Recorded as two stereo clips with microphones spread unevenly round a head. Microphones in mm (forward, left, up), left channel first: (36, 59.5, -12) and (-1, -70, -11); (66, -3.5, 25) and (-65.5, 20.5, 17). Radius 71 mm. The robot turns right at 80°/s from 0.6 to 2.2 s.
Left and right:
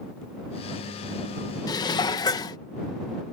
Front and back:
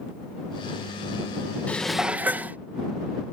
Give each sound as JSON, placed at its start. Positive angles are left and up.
{"t": 1.7, "sound": "dishes clattering", "azimuth_deg": 55}